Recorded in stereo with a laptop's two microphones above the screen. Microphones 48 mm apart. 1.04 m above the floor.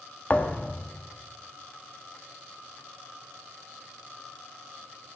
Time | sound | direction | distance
0.3 | a thud | 30° left (ahead or behind) | 0.8 m